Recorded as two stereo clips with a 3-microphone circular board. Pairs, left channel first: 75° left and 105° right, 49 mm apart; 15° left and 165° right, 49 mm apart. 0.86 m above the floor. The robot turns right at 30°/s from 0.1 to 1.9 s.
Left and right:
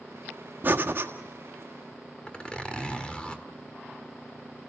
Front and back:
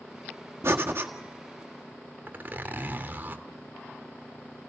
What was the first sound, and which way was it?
Breathing, 145° right.